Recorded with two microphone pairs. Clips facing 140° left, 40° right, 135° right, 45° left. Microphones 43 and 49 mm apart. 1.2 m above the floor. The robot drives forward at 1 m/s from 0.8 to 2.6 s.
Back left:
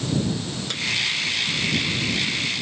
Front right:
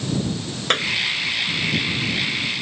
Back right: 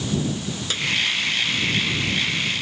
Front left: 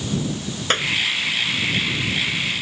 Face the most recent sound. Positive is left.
turn(degrees=0)